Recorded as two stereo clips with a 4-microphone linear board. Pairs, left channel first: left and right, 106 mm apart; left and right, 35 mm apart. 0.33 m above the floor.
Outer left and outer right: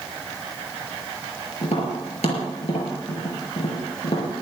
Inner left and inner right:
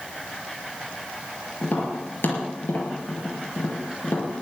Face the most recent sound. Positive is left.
turn(degrees=80)